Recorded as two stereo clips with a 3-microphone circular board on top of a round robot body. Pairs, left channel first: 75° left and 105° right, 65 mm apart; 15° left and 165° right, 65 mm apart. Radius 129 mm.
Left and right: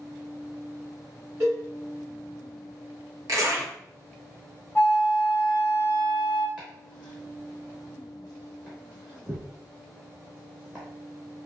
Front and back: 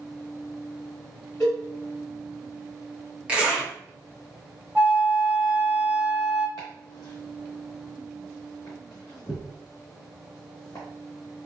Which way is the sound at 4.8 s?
135° left.